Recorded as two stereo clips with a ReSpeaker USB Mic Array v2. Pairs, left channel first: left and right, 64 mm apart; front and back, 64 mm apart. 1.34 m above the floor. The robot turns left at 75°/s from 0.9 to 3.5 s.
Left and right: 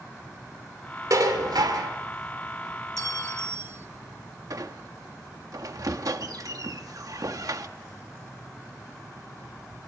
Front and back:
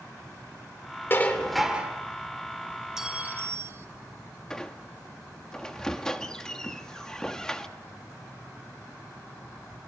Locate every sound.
1.1 s dishes clattering: 55° right, 3 m; by 1.9 s 120° right, 3 m
3.0 s a clink: 100° right, 1.0 m; by 3.9 s 140° right, 1.0 m
4.5 s a squeak: 80° right, 1.1 m